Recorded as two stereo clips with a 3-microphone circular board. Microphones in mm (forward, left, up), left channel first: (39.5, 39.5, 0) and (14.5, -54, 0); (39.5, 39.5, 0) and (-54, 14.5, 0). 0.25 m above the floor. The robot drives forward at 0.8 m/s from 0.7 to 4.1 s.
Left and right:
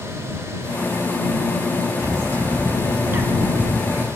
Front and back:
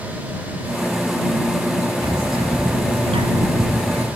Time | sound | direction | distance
2.0 | a bird | 155° right | 0.8 m